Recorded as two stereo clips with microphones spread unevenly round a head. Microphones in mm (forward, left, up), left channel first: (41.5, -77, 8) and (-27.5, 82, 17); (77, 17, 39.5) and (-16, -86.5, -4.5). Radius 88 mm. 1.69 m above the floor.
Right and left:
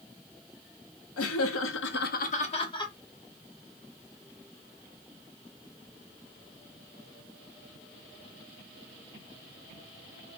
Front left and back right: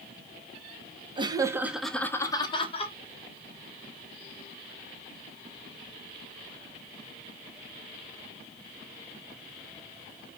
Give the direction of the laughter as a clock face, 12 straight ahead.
2 o'clock.